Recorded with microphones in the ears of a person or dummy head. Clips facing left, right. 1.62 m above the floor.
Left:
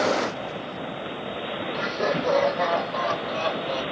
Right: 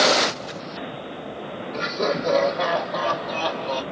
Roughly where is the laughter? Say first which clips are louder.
Right 2 dB; right.